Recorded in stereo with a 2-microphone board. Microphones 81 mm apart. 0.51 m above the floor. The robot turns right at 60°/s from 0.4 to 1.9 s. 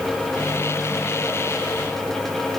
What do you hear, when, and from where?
Only background noise.